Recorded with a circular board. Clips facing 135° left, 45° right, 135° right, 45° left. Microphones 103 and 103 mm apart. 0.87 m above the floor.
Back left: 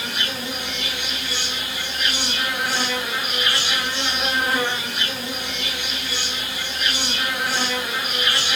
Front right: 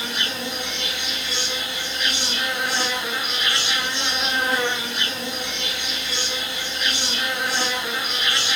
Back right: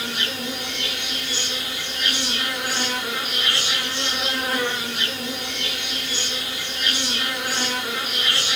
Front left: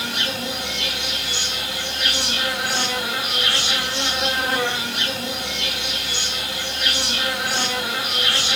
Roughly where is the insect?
Ahead left.